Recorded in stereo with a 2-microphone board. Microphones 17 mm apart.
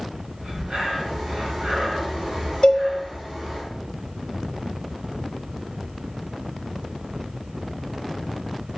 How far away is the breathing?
About 3.5 m.